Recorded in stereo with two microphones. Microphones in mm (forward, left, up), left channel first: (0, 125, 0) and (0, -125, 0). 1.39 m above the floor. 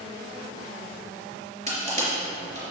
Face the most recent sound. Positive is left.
turn(degrees=-25)  # may be behind; listen again after turning